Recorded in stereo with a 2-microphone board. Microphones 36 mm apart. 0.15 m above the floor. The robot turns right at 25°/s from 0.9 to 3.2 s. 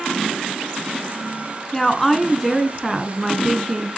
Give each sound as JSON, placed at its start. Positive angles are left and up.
{"t": 1.7, "sound": "a woman speaking", "azimuth_deg": 160, "distance_m": 1.3}